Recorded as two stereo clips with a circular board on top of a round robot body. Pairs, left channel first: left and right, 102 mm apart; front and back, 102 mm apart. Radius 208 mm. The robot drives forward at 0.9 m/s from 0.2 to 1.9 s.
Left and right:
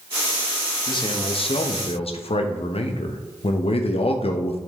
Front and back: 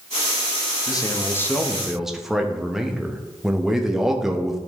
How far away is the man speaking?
About 1.4 m.